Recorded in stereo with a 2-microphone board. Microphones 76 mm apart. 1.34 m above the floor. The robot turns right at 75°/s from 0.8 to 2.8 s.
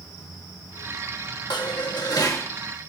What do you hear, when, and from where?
1.5 s dishes clattering: 70° left, 1.7 m; by 2.5 s 145° left, 1.7 m